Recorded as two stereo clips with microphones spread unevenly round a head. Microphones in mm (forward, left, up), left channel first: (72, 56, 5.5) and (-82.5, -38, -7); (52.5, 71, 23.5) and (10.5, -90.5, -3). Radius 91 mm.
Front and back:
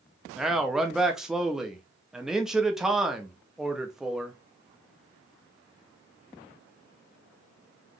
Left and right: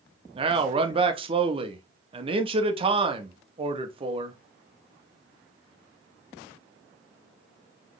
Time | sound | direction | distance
0.3 | a man speaking | 55° right | 0.8 m